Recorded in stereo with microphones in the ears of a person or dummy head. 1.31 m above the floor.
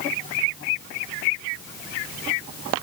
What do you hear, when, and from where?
Only background noise.